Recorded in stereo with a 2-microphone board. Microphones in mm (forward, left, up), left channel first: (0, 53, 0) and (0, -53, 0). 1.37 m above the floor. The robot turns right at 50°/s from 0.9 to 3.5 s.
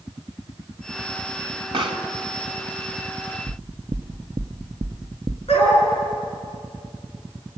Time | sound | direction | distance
1.7 | a pop | 55° right (ahead or behind) | 1.9 m
3.5 | knocking | 45° right (ahead or behind) | 0.7 m
5.5 | a dog barking | 70° left (ahead or behind) | 8.5 m